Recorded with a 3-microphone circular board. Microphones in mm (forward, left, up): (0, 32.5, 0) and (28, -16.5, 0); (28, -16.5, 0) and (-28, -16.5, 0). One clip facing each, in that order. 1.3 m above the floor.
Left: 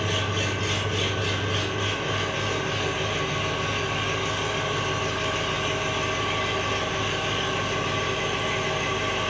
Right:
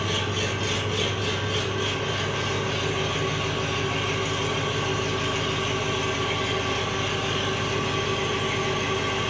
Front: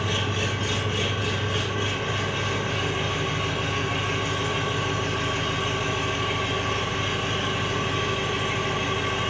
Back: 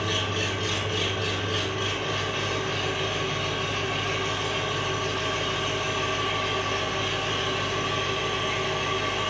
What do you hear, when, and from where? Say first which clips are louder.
0.0 s an engine running: even, front 1 dB; 70° left, 1.4 m